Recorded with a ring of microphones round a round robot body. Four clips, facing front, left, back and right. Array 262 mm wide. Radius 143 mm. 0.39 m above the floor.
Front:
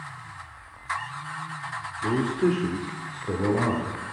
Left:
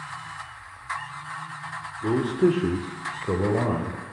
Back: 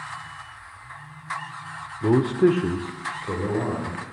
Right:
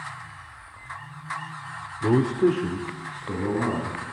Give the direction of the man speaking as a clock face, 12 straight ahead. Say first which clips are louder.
Right 1 dB, back 5 dB; 5 o'clock.